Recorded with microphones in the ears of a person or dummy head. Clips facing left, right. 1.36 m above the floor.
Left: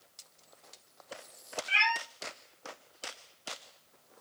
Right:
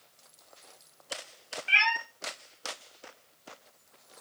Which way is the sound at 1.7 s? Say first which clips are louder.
Right 2 dB; 50° right (ahead or behind).